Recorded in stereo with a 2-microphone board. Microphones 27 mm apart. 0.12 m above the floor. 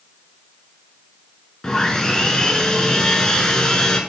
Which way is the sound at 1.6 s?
25° left (ahead or behind).